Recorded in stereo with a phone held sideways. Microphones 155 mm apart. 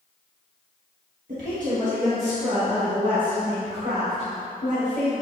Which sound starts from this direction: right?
A woman speaking, at 1.3 s.